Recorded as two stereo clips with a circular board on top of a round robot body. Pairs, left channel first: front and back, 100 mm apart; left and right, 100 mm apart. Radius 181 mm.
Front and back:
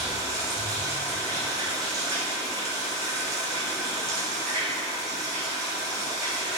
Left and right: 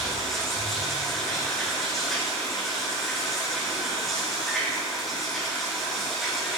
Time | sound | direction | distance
0.0 | running water | straight behind | 5.5 m